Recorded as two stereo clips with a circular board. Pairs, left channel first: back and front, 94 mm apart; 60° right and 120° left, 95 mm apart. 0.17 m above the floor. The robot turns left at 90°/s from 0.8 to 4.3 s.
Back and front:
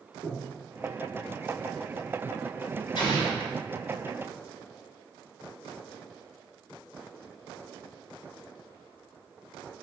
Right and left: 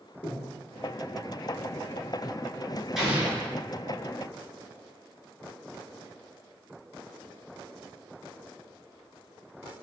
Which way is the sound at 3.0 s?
155° right.